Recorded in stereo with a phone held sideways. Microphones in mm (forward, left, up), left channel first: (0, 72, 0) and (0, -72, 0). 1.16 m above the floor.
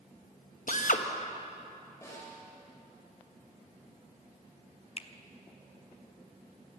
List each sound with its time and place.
0.7 s a drill: 65° left (ahead or behind), 0.9 m
2.0 s a snare drum: 20° left (ahead or behind), 4 m
5.0 s a finger snap: 45° left (ahead or behind), 0.6 m